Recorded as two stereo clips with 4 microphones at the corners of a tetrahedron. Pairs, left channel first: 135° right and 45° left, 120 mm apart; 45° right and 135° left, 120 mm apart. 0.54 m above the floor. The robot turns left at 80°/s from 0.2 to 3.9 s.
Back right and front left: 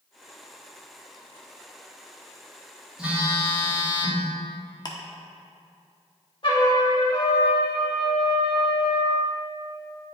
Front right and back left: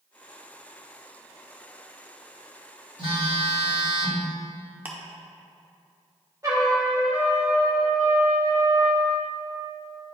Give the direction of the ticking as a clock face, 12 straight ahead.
5 o'clock.